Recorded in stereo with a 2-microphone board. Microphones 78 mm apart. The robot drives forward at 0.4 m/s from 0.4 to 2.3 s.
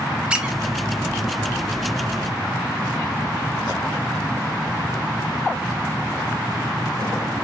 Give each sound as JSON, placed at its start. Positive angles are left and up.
{"t": 0.3, "sound": "a squeak", "side_deg": -10, "distance_m": 1.1}